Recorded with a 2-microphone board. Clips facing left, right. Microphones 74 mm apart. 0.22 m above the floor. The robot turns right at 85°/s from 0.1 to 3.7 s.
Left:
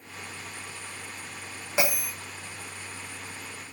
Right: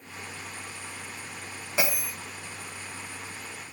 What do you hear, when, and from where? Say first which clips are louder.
1.8 s a bell: left 2 dB; 15° left (ahead or behind), 3.5 m; by 2.1 s 15° right (ahead or behind), 3.5 m